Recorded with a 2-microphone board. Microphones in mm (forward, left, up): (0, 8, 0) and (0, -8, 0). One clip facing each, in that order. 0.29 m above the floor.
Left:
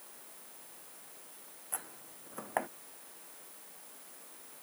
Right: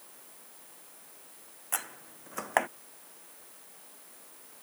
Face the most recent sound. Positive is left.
turn(degrees=-85)